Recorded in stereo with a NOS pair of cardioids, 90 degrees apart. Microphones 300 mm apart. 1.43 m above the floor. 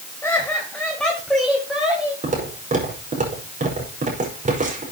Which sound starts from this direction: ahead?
Laughter, at 0.2 s.